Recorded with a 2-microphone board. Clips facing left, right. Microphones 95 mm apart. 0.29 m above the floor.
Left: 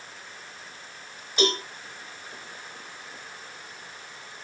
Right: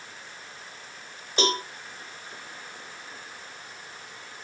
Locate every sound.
1.4 s a cowbell: 30° right (ahead or behind), 1.2 m